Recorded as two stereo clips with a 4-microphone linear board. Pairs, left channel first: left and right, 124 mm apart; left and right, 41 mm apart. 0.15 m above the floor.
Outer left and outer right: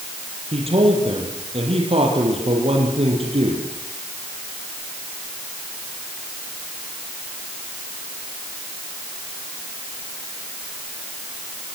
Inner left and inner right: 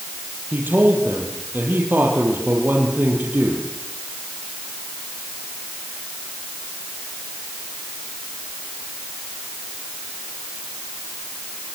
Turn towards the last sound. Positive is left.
turn(degrees=-50)  # may be behind; listen again after turning